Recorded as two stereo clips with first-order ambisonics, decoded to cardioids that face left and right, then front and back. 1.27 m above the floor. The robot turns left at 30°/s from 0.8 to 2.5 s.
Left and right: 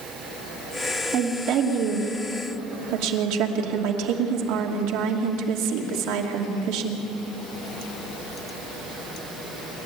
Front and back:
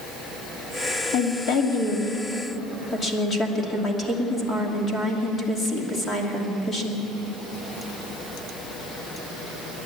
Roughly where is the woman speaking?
Ahead right.